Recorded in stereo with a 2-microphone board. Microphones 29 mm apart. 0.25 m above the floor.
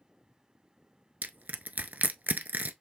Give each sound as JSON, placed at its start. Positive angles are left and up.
{"t": 1.2, "sound": "crushing", "side_deg": -70, "distance_m": 0.5}